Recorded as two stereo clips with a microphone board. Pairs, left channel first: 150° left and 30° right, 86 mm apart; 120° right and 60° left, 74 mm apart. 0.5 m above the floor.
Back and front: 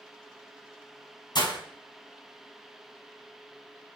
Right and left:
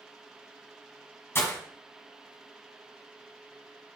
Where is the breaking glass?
Straight behind, 1.8 m.